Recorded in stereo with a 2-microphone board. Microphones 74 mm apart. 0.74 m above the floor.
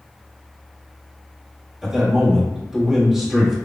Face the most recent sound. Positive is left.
turn(degrees=-5)  # may be behind; listen again after turning